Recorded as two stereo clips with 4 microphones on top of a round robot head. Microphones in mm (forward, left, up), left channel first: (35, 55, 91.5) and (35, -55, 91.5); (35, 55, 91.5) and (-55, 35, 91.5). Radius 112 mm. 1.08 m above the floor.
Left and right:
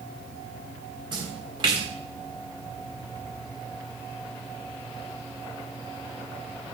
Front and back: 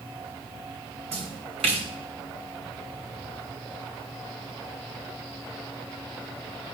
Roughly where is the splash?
Behind right.